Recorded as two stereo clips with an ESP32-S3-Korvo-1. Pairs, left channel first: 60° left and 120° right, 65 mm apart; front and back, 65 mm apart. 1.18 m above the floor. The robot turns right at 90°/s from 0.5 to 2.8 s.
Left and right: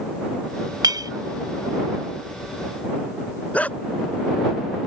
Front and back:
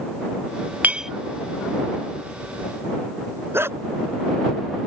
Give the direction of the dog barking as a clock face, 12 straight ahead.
8 o'clock.